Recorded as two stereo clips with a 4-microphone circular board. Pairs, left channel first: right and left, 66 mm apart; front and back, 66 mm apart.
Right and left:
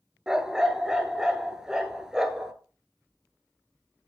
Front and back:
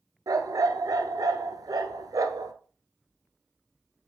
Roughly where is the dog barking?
Behind.